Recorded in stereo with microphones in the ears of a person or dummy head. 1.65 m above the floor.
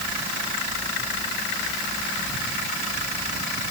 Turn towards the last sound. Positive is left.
No sound to turn to.